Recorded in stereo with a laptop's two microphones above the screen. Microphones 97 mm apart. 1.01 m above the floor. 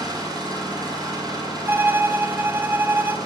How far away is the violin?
About 0.8 m.